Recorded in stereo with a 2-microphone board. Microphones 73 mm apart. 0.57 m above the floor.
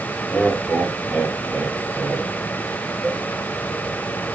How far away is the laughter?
About 4 m.